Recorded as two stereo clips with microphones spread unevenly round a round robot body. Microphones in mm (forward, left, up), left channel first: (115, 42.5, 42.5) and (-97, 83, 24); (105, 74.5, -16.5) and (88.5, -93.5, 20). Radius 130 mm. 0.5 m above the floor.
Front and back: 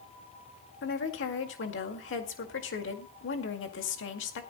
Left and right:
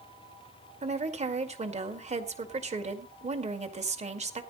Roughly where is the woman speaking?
Ahead right.